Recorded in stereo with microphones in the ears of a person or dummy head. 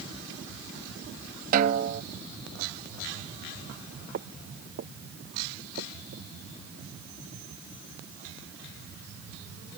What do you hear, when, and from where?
1.5 s a snare drum: 50° right (ahead or behind)
4.1 s footsteps: 55° right (ahead or behind); by 6.3 s 60° right (ahead or behind)